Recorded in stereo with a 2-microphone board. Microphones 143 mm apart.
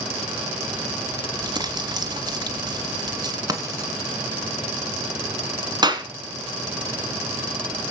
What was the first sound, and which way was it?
Crumpling, 30° right (ahead or behind).